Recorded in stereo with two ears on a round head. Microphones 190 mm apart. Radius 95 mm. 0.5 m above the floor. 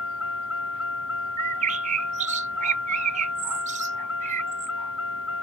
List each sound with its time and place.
0.0 s a vehicle: 65° left (ahead or behind)
1.4 s a bird: 35° right (ahead or behind)